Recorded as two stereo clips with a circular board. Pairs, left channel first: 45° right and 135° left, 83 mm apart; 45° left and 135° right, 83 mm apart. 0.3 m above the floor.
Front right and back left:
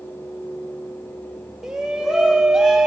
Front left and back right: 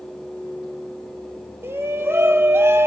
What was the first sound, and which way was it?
A shout, 145° right.